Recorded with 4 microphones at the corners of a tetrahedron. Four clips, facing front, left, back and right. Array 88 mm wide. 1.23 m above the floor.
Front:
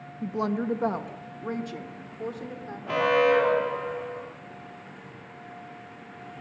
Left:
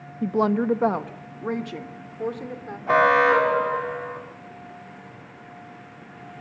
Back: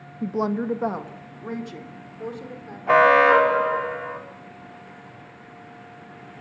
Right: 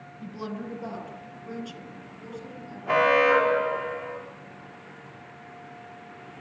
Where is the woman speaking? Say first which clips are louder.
Left 14 dB, back 3 dB; 115° left, 0.7 m; by 2.8 s 85° left, 4 m.